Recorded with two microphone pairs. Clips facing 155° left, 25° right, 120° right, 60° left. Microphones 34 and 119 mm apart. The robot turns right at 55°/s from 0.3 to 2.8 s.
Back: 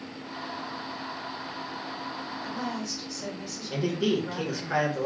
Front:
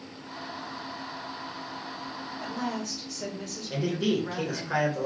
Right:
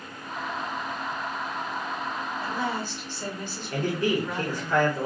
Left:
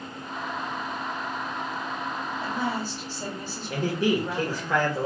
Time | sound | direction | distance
2.4 | a woman speaking | 15° right | 1.7 m
3.7 | a man speaking | 60° left | 1.7 m